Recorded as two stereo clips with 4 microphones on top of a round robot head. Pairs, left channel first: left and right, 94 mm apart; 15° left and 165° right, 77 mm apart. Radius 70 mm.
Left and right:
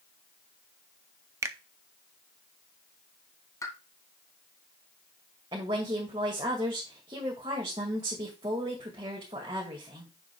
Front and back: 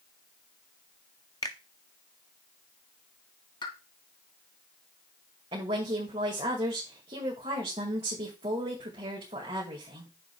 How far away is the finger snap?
About 0.5 m.